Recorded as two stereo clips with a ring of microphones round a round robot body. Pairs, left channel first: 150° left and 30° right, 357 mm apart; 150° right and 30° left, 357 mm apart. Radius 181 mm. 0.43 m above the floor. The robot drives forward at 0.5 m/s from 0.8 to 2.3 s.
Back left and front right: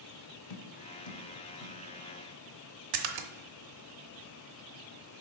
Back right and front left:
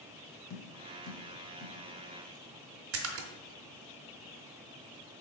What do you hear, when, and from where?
0.5 s tapping: 155° left, 0.6 m; by 1.8 s 165° left, 1.0 m
2.9 s a splash: 20° right, 0.5 m